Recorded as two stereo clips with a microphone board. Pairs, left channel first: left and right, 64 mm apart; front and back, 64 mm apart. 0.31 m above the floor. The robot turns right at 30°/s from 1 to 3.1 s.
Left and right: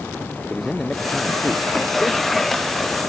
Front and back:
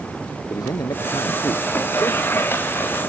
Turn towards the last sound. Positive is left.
turn(degrees=60)